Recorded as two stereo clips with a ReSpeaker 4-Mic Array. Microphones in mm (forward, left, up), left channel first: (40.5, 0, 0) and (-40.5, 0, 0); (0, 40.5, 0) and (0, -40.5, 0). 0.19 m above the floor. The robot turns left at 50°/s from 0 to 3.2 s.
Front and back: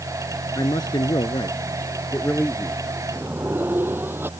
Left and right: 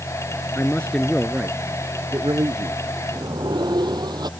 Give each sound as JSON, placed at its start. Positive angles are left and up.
{"t": 0.6, "sound": "a man speaking", "azimuth_deg": 30}
{"t": 3.1, "sound": "a sliding door", "azimuth_deg": -110}